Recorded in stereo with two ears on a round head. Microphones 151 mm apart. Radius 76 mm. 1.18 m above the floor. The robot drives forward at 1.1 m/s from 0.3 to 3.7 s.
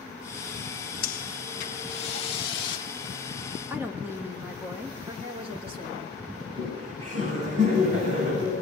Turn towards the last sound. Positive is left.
turn(degrees=-55)  # may be behind; listen again after turning